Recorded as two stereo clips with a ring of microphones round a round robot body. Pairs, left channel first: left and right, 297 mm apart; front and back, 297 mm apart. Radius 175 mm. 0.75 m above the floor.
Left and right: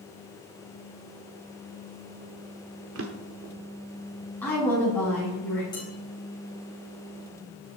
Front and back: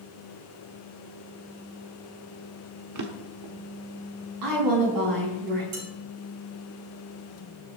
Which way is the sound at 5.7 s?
170° left.